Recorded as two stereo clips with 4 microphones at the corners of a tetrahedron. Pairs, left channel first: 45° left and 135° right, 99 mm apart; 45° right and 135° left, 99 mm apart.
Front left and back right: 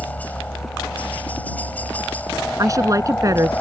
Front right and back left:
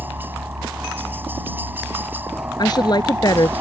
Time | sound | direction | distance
0.0 | a helicopter | 95° left | ?
2.6 | a woman speaking | 85° right | ?